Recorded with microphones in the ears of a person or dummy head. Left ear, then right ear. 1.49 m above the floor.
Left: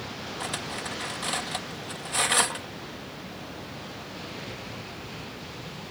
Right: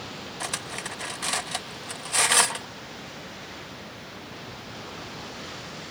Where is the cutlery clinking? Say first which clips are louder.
Right 1 dB; 20° right (ahead or behind).